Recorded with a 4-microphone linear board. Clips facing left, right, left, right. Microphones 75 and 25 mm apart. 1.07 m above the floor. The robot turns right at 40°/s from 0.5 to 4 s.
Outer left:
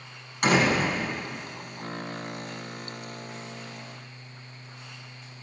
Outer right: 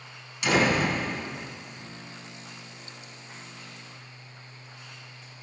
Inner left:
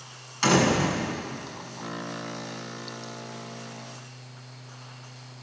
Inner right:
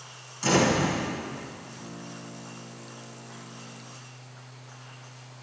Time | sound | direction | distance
0.4 | a door slam | 50° left (ahead or behind) | 7.5 m